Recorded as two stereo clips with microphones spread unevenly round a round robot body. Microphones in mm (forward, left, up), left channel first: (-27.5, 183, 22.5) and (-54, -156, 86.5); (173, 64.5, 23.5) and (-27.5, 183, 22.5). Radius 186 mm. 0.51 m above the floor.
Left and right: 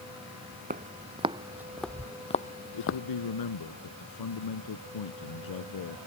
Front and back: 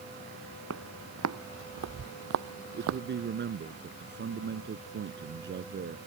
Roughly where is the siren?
No siren in this recording.